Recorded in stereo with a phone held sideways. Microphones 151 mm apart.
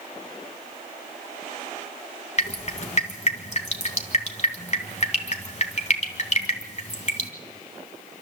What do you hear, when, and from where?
2.4 s dripping: 50° left (ahead or behind), 2.5 m